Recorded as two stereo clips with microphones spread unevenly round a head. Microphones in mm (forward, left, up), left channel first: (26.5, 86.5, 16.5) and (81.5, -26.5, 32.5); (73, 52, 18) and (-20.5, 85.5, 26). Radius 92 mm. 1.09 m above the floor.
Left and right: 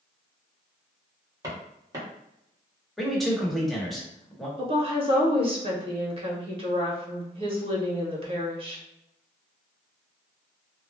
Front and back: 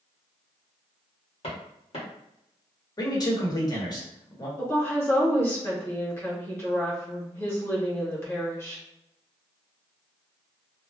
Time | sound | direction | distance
1.4 | footsteps | 15° right | 1.7 m
3.0 | a man speaking | 30° left | 1.2 m
4.6 | a woman speaking | 60° right | 0.8 m